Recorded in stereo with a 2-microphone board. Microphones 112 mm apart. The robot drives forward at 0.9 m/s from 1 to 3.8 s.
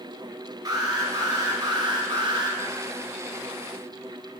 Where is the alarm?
35° right (ahead or behind), 3 m; by 2.6 s 40° right (ahead or behind), 2.5 m.